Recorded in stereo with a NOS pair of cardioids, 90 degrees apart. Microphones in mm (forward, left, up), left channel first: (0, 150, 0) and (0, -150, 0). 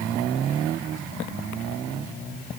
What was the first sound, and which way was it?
Only background noise.